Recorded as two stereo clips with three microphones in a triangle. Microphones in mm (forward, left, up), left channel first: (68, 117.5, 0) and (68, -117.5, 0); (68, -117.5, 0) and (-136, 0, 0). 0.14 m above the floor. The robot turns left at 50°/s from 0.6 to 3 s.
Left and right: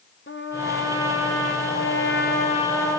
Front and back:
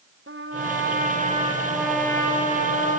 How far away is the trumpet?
About 6 m.